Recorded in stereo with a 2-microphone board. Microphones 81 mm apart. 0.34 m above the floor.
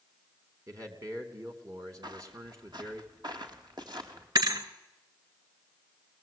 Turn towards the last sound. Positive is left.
turn(degrees=-60)  # may be behind; listen again after turning